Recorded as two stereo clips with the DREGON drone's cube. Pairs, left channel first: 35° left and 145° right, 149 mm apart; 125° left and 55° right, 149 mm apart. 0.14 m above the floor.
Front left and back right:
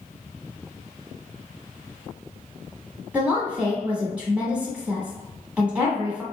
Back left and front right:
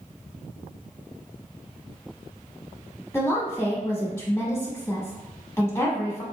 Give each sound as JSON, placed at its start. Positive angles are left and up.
{"t": 3.1, "sound": "a woman speaking", "azimuth_deg": 155, "distance_m": 1.3}